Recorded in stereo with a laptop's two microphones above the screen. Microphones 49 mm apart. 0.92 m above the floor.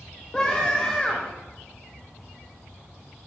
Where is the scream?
15° left (ahead or behind), 0.6 m.